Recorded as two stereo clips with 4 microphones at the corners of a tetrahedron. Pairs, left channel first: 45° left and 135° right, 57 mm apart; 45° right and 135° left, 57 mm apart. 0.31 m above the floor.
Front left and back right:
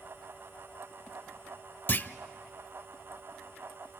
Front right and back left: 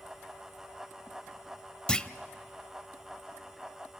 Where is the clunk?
20° left, 0.5 m.